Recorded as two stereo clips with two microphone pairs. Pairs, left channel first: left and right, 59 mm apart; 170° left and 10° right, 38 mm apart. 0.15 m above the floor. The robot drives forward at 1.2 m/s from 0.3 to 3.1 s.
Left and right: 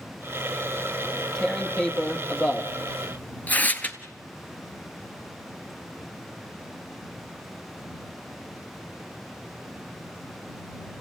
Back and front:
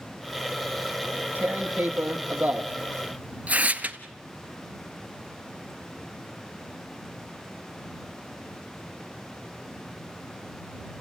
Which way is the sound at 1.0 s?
10° left.